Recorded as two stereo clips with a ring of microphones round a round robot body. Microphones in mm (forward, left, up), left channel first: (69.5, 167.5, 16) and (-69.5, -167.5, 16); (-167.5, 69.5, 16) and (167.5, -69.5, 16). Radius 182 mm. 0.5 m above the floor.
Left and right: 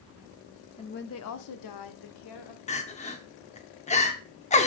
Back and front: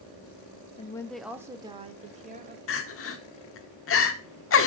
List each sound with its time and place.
0.8 s a woman speaking: 115° left, 0.7 m; by 2.6 s 45° left, 1.9 m
2.7 s crying: 130° left, 1.1 m